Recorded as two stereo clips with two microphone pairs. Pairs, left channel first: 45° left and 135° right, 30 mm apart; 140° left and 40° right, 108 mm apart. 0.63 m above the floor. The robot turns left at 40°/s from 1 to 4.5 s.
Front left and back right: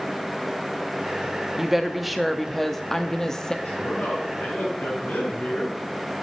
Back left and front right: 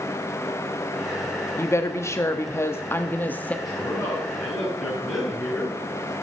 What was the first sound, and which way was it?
A woman speaking, 160° left.